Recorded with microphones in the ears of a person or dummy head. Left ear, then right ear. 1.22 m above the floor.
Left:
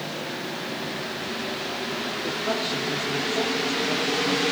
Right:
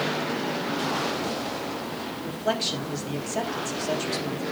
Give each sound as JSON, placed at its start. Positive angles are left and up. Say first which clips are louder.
{"t": 2.2, "sound": "a man speaking", "louder": "right 2 dB", "side_deg": -80, "distance_m": 3.0}